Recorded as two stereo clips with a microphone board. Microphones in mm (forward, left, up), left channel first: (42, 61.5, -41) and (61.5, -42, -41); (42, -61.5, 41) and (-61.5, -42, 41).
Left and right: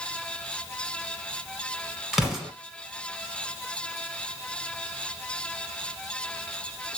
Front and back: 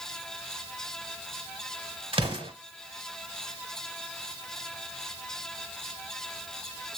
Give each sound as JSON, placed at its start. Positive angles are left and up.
{"t": 2.1, "sound": "an explosion", "azimuth_deg": -165, "distance_m": 1.1}